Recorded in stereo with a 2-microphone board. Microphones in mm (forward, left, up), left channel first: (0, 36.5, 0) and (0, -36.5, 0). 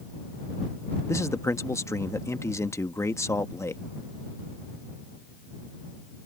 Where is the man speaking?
40° left (ahead or behind).